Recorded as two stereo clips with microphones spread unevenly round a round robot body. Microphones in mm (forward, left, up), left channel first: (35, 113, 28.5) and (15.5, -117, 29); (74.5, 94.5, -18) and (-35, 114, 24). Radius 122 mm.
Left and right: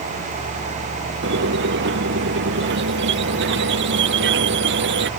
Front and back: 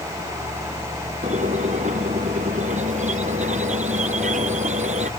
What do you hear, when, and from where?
1.2 s a squeak: 140° right